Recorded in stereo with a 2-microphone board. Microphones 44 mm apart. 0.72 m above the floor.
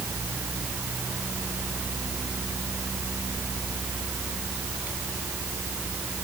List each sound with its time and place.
Only background noise.